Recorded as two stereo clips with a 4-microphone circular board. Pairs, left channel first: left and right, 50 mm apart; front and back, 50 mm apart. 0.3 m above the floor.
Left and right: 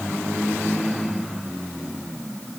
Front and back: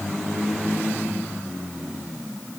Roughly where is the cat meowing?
No cat meowing in this recording.